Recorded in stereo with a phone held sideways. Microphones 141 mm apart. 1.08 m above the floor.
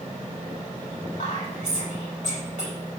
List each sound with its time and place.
1.2 s whispering: 55° left (ahead or behind), 4 m